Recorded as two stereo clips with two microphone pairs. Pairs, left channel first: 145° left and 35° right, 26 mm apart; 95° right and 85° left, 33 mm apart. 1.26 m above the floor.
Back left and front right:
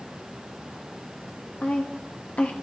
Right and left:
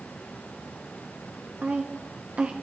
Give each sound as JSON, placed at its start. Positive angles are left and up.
{"t": 1.6, "sound": "a woman speaking", "azimuth_deg": 130, "distance_m": 1.0}